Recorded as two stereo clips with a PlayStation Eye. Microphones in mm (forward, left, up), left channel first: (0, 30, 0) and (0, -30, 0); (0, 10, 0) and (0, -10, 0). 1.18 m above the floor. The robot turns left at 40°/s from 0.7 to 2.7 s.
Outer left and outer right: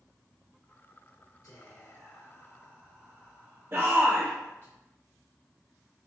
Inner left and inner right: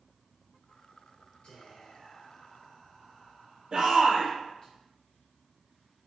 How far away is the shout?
About 0.7 m.